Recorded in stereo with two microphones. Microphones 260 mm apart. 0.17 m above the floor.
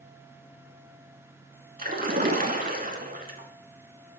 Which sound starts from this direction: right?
A splash, at 1.8 s.